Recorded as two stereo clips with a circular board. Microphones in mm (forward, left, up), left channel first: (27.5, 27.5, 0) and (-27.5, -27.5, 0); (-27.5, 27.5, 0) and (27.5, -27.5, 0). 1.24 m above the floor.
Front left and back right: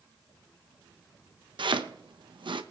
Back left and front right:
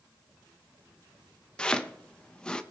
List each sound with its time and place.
1.6 s chopping: 145° right, 0.9 m